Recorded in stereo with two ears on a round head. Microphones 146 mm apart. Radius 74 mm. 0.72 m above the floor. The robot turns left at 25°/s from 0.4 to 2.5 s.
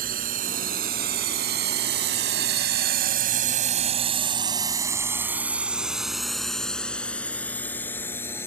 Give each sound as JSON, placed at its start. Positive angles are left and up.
{"t": 0.0, "sound": "a drone", "side_deg": -55}